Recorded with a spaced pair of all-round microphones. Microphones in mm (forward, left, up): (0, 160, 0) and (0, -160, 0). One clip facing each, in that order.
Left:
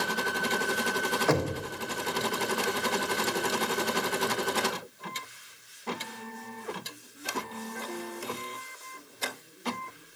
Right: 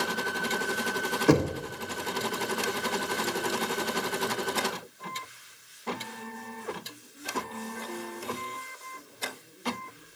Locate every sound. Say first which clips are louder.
1.3 s knocking: right 6 dB; 40° right (ahead or behind), 0.8 m